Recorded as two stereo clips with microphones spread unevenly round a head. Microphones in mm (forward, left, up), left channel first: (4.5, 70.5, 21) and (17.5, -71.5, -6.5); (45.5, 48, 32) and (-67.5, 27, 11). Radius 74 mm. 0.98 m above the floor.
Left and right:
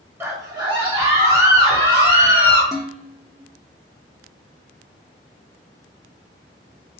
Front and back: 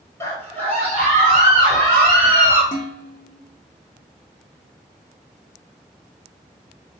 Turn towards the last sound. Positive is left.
turn(degrees=5)